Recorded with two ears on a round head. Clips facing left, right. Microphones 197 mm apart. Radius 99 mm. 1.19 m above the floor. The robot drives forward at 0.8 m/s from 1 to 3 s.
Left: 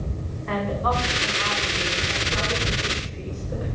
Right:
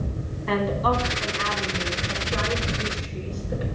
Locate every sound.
0.5 s a woman speaking: 55° right (ahead or behind), 3.5 m; by 3.6 s 40° right (ahead or behind), 4.5 m